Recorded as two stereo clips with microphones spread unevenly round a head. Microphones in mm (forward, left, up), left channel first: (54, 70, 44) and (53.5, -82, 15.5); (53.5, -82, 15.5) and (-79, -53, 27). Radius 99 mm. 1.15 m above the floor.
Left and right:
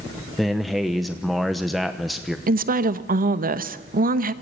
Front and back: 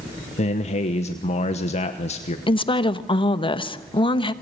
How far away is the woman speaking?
About 1.2 m.